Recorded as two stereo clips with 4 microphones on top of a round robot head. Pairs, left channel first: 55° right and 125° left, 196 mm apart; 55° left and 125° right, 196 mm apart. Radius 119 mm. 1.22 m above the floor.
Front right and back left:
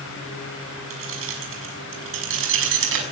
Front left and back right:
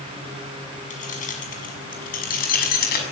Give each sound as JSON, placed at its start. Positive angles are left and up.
{"t": 0.9, "sound": "keys jangling", "azimuth_deg": 110, "distance_m": 6.5}